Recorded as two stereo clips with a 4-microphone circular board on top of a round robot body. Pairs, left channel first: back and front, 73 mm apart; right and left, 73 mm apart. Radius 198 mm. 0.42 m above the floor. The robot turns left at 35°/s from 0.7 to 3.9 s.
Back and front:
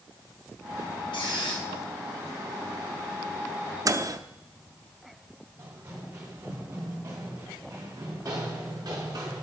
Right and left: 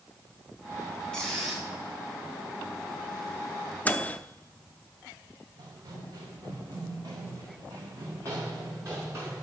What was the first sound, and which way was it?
A squeak, 170° right.